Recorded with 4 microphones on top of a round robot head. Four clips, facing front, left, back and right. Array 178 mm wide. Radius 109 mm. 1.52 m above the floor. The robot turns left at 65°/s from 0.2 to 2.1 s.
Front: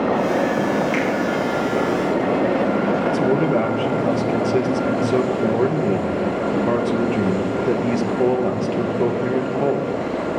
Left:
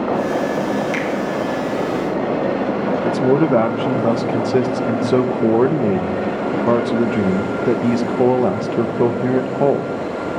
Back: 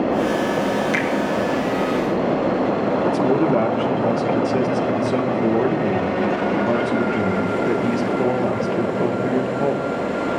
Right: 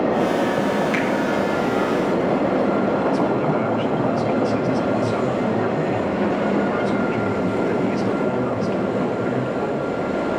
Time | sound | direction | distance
0.9 | a finger snap | 140° left | 4.5 m
3.0 | a man speaking | 85° left | 1.7 m